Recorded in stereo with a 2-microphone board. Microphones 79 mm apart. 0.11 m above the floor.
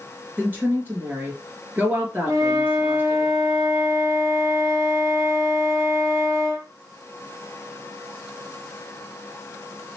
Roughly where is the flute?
Right.